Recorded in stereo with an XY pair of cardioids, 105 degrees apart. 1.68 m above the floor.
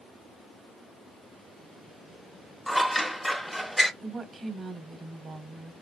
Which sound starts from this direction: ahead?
Scissors, at 2.7 s.